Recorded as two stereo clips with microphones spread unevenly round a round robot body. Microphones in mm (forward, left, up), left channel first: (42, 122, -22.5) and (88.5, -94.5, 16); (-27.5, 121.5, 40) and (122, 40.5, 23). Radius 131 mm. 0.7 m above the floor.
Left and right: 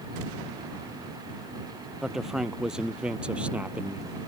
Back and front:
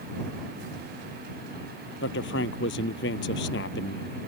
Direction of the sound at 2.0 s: 165° right.